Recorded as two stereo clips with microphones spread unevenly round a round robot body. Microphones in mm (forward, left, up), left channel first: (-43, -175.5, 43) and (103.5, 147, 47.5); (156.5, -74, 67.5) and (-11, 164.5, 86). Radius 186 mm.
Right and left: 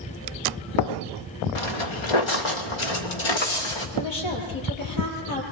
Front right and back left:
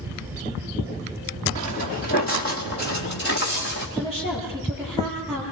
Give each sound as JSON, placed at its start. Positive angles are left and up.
{"t": 1.6, "sound": "footsteps", "azimuth_deg": -125, "distance_m": 1.9}
{"t": 4.0, "sound": "a woman speaking", "azimuth_deg": -130, "distance_m": 10.0}